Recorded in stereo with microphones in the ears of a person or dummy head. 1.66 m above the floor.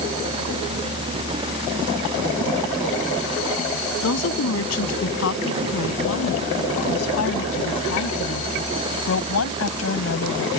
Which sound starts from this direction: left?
A woman speaking, at 4.0 s.